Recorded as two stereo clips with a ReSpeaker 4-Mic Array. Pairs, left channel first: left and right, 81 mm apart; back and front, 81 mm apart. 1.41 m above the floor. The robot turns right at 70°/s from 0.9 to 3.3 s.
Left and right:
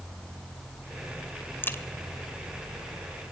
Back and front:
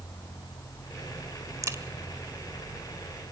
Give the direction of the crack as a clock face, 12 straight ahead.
11 o'clock.